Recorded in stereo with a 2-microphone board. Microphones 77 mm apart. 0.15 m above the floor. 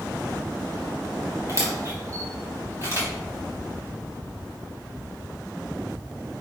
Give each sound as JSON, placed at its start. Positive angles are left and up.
{"t": 1.5, "sound": "a camera shutter", "side_deg": -30, "distance_m": 3.5}